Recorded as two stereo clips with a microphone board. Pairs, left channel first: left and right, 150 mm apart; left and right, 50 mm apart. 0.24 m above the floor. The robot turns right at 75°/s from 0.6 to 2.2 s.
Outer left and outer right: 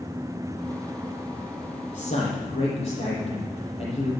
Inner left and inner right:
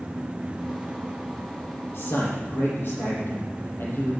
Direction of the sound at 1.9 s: 65° left (ahead or behind).